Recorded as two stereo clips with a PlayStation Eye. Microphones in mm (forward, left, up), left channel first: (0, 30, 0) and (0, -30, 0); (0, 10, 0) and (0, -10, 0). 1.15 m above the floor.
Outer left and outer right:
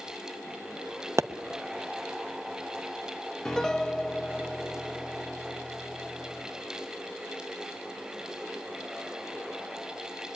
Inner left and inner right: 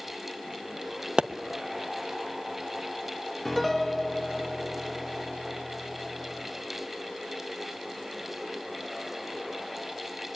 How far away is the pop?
About 0.8 m.